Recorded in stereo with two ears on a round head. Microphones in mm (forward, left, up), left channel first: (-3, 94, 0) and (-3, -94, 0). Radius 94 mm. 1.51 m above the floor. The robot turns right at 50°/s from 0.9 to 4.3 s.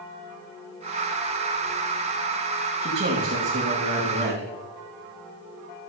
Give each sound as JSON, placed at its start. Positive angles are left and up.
{"t": 2.8, "sound": "a man speaking", "azimuth_deg": -140, "distance_m": 2.5}